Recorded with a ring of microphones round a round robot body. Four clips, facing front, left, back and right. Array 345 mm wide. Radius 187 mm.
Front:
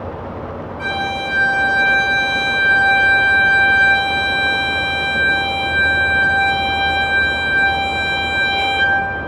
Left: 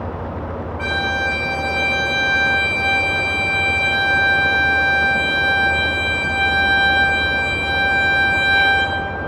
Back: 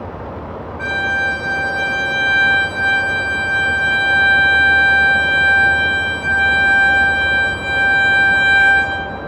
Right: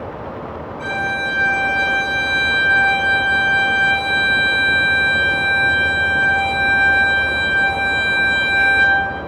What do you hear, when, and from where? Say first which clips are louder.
0.8 s a violin: even, back 3 dB; 110° left, 6.5 m